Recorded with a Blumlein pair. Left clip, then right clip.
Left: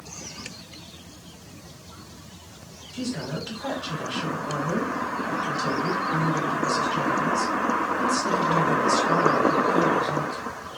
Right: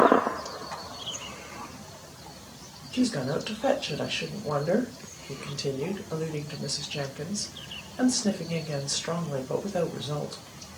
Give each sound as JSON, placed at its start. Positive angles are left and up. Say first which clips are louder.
{"t": 2.9, "sound": "a woman speaking", "louder": "right 4 dB", "azimuth_deg": -30, "distance_m": 1.4}